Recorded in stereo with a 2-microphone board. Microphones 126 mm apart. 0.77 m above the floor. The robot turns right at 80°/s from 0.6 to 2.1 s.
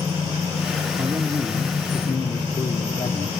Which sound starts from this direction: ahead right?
A man speaking, at 1.0 s.